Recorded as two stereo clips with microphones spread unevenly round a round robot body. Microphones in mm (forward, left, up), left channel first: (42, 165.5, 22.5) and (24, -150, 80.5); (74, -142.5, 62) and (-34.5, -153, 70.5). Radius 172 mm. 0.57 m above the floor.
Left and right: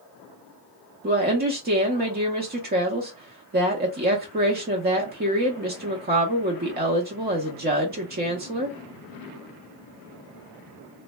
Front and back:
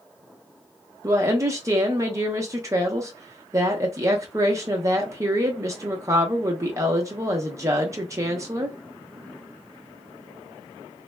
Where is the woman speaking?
140° right, 0.6 m.